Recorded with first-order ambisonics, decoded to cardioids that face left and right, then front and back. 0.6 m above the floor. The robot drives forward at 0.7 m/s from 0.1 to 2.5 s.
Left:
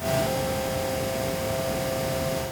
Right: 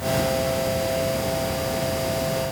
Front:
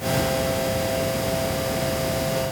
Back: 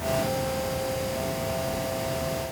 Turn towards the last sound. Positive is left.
No sound to turn to.